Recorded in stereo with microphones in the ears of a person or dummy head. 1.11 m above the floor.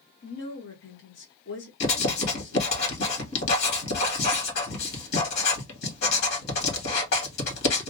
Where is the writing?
60° left (ahead or behind), 1.4 m.